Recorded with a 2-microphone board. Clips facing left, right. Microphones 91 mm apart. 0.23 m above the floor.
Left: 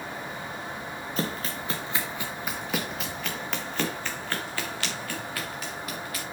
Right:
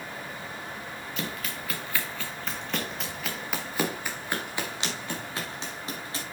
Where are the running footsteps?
40° left (ahead or behind), 2 m; by 6.2 s 30° right (ahead or behind), 4 m.